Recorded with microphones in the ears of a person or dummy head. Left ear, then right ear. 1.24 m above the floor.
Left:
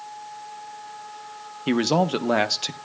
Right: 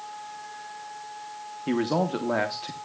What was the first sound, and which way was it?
A man speaking, 70° left (ahead or behind).